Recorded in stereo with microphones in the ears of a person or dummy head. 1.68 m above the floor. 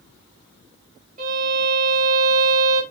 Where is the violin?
40° right (ahead or behind), 1.5 m.